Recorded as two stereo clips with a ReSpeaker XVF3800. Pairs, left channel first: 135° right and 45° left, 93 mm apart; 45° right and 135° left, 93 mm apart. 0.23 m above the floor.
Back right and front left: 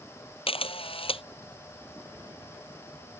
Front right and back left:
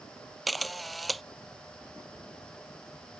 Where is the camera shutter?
135° right.